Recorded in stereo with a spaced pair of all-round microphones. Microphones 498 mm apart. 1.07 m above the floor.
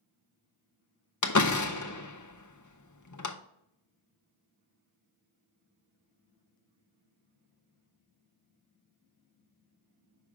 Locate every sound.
1.2 s a door slam: 40° left (ahead or behind), 0.6 m